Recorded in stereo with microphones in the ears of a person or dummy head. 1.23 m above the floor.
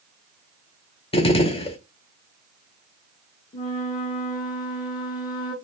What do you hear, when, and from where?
1.1 s a gunshot: 30° left (ahead or behind), 0.5 m
3.5 s a flute: 20° left (ahead or behind), 1.3 m